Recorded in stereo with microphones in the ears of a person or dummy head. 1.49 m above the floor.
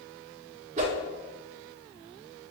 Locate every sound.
0.8 s a whoosh: 40° right (ahead or behind), 0.7 m